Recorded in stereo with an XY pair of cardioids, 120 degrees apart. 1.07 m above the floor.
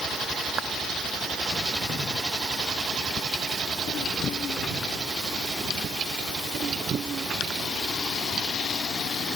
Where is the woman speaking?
I don't hear a woman speaking.